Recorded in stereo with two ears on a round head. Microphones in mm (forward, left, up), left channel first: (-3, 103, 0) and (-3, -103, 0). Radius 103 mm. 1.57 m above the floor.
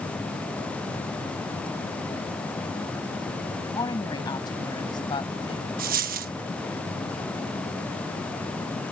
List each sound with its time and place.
3.6 s a woman speaking: 15° left (ahead or behind); by 5.7 s 20° left (ahead or behind)
5.8 s a dropped coin: 40° right (ahead or behind)